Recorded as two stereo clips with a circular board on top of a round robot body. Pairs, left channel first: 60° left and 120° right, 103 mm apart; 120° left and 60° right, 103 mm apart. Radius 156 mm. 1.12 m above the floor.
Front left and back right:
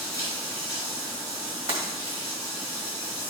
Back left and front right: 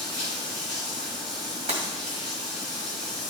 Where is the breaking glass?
90° right, 1.7 m.